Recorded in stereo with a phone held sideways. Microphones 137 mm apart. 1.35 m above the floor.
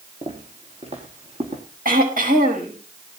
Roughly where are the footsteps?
Right.